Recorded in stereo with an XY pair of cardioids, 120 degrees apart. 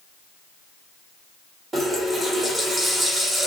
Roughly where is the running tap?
Ahead right.